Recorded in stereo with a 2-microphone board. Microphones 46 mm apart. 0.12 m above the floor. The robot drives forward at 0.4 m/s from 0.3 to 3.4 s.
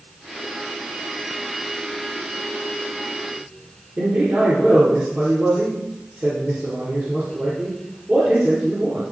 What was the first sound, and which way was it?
A man speaking, 45° right (ahead or behind).